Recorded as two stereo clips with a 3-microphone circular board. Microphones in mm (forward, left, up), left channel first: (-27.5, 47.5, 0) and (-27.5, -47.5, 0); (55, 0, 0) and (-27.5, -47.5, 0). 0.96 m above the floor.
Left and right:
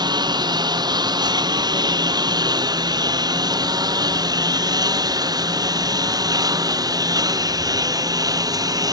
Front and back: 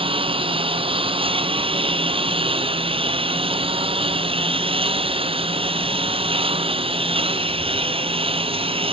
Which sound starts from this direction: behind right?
A lawn mower, at 0.0 s.